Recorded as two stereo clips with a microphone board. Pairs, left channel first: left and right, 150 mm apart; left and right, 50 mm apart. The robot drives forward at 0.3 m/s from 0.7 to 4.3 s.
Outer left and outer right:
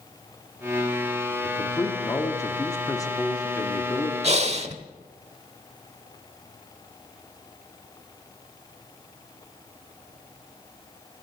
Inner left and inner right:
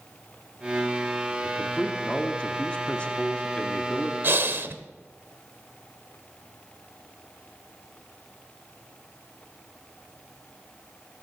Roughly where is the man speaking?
Centre.